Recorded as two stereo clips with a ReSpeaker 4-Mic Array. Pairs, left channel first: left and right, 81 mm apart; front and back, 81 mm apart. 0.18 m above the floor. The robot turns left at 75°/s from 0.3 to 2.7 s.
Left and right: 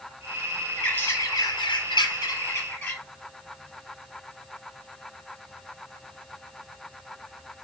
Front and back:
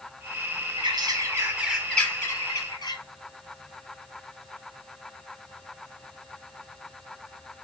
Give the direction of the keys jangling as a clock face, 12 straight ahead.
No keys jangling in this recording.